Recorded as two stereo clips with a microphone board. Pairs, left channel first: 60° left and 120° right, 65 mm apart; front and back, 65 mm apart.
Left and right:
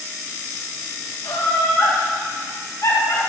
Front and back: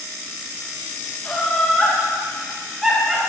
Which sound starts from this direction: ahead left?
Laughter, at 1.2 s.